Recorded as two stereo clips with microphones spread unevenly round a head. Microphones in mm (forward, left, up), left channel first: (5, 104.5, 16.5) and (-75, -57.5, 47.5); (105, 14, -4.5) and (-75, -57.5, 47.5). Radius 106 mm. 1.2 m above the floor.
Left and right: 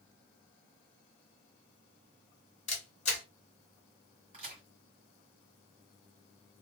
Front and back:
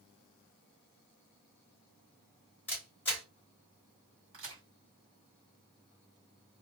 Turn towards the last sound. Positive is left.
turn(degrees=-165)